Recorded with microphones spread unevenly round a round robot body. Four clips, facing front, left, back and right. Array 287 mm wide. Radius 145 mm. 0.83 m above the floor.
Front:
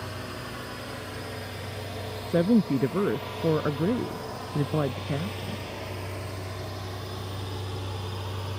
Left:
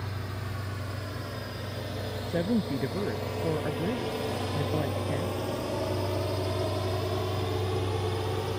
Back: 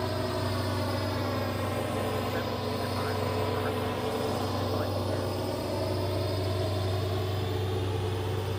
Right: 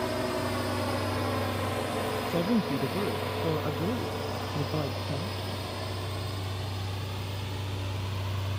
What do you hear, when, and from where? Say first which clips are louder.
0.0 s a drone: right 10 dB, back 7 dB; 120° right; by 8.6 s 115° left
2.3 s a woman speaking: left 1 dB, front 9 dB; straight ahead